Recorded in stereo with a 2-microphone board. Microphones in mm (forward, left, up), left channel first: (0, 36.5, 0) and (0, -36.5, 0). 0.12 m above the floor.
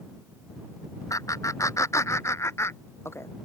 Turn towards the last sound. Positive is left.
turn(degrees=35)  # may be behind; listen again after turning